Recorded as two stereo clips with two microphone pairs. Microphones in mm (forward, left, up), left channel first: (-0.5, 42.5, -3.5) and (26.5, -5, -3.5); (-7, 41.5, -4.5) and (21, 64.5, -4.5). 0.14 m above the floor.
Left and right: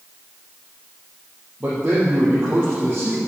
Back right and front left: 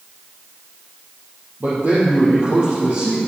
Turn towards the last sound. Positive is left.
turn(degrees=0)